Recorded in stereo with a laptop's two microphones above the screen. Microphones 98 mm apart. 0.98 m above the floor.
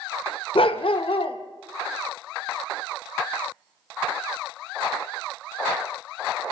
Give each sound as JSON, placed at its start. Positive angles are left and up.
{"t": 0.6, "sound": "a dog barking", "side_deg": 65, "distance_m": 1.0}